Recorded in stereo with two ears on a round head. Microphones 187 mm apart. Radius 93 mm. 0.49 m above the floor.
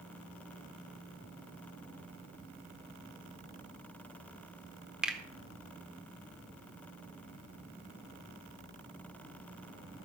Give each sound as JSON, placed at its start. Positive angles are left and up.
{"t": 5.0, "sound": "a finger snap", "side_deg": -5, "distance_m": 1.0}